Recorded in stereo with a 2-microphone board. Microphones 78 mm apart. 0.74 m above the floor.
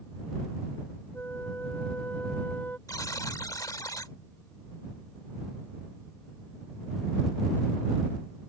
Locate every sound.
1.1 s a flute: 25° left (ahead or behind)
2.9 s a buzzer: 50° left (ahead or behind)